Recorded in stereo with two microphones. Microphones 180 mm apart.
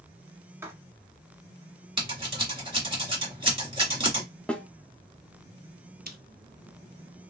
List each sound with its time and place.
0.6 s writing: 15° right (ahead or behind), 1.0 m
2.0 s scissors: 30° right (ahead or behind), 1.6 m
4.5 s a snare drum: 5° left (ahead or behind), 0.6 m
6.1 s chewing: 55° right (ahead or behind), 0.6 m